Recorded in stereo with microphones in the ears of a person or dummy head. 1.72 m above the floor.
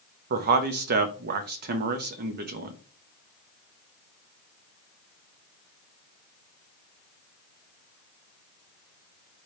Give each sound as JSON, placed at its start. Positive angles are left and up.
{"t": 0.3, "sound": "a man speaking", "side_deg": -50, "distance_m": 0.6}